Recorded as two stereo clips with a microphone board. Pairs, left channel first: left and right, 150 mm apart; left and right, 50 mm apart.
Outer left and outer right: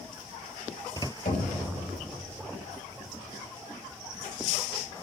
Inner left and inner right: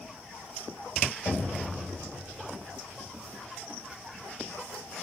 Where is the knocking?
80° left, 2.5 m.